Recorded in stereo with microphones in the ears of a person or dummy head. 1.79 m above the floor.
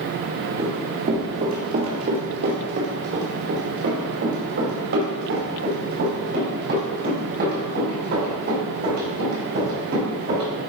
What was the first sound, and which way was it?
Running footsteps, 25° right (ahead or behind).